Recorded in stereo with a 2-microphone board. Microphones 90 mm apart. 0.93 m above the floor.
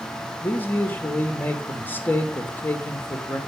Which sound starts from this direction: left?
A man speaking, at 0.4 s.